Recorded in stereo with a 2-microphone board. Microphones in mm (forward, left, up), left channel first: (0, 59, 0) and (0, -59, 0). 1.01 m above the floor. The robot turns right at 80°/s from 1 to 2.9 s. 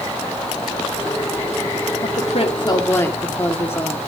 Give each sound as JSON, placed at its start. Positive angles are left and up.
{"t": 2.0, "sound": "a woman speaking", "azimuth_deg": 90, "distance_m": 2.5}